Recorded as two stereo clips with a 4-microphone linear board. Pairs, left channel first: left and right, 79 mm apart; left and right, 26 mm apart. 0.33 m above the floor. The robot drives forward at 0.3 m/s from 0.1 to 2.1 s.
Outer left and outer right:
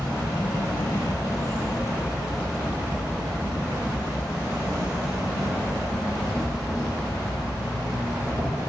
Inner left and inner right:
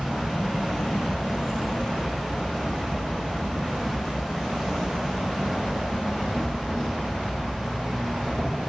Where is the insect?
30° right (ahead or behind), 0.9 m; by 8.7 s 20° right (ahead or behind), 1.4 m.